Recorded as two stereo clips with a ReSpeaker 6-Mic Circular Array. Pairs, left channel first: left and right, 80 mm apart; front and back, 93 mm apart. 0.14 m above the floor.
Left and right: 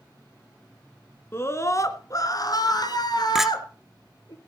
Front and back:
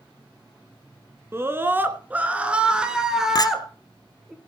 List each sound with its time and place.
1.3 s a scream: 130° left, 1.4 m; by 4.3 s 90° left, 2.5 m
3.4 s a clink: 10° right, 0.8 m